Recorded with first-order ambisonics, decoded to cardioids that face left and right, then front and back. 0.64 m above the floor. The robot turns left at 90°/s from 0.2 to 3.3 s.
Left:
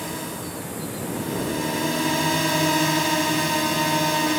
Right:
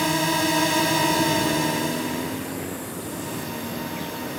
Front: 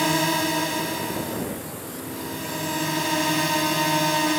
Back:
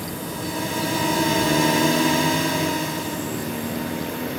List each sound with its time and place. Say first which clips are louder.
0.0 s a drone: right 10 dB, front 9 dB; 35° right; by 4.4 s 45° left